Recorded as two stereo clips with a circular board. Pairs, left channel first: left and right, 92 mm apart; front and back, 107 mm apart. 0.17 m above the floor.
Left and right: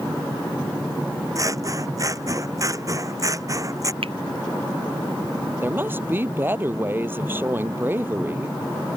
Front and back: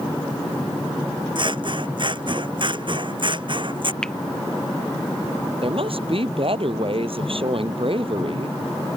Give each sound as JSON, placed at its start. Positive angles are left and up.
{"t": 1.4, "sound": "scissors", "azimuth_deg": -140}
{"t": 4.0, "sound": "a finger snap", "azimuth_deg": -85}
{"t": 5.6, "sound": "a woman speaking", "azimuth_deg": -155}